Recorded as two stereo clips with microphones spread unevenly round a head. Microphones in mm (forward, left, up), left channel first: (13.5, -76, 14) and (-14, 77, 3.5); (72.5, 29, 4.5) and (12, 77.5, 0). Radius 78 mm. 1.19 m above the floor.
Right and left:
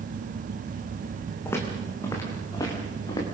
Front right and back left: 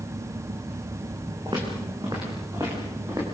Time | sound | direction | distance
1.4 | footsteps | 155° right | 4.5 m